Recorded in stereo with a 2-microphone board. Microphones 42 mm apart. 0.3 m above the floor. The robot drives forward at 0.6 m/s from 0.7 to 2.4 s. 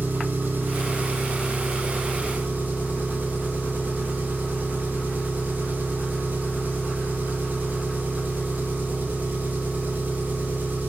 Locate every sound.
0.0 s an engine running: 45° right (ahead or behind), 4.5 m; by 10.9 s 40° right (ahead or behind), 5 m